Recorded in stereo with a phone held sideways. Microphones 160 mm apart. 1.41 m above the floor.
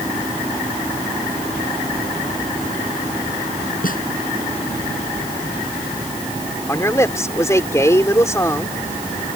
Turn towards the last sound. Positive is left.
turn(degrees=15)  # may be behind; listen again after turning